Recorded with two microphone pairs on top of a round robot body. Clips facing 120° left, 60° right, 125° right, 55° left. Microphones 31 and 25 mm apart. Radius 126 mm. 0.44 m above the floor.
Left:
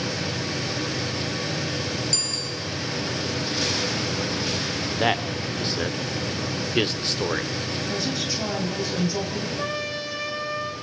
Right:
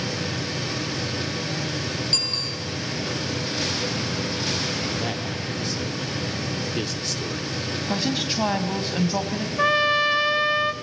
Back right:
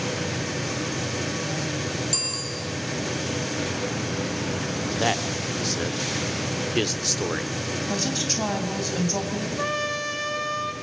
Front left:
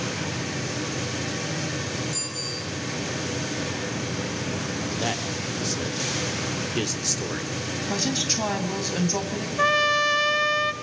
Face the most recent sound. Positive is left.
turn(degrees=-10)